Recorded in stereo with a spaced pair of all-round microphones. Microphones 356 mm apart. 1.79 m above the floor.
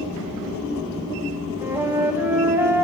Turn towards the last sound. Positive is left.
turn(degrees=-5)  # may be behind; listen again after turning